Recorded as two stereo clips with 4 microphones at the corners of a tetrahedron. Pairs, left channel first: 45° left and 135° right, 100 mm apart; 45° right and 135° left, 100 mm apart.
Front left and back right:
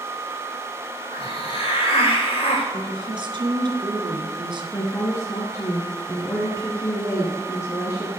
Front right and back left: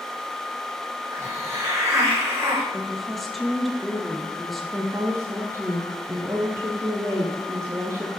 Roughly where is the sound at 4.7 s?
Left.